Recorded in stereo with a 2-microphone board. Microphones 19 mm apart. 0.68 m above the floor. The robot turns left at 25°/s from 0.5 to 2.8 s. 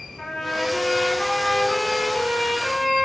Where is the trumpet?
115° left, 1.2 m; by 3.0 s 60° left, 1.2 m.